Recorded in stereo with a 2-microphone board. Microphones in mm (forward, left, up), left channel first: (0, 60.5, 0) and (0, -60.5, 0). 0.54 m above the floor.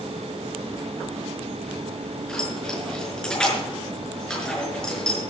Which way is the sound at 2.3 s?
5° left (ahead or behind).